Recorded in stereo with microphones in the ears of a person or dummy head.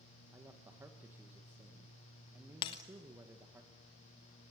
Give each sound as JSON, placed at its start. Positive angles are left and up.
{"t": 0.3, "sound": "a man speaking", "side_deg": -10, "distance_m": 1.6}
{"t": 2.6, "sound": "breaking glass", "side_deg": 25, "distance_m": 1.0}